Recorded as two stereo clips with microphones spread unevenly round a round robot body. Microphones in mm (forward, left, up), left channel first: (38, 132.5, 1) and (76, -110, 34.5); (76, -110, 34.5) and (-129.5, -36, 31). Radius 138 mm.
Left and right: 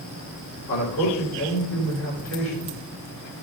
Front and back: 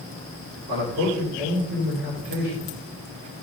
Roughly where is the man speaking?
Behind left.